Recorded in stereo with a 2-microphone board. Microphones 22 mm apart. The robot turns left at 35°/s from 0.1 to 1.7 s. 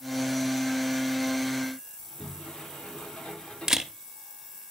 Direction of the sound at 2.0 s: 50° left (ahead or behind).